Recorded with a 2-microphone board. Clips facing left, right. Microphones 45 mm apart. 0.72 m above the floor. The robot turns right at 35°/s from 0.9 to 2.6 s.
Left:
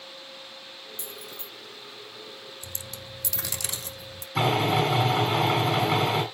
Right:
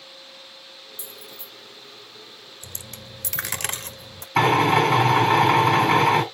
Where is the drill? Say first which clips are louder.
Right 6 dB; 65° right (ahead or behind), 4.5 m.